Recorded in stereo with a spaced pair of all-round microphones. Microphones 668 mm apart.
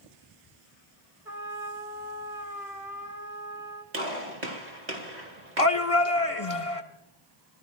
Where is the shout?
50° left (ahead or behind), 2 m.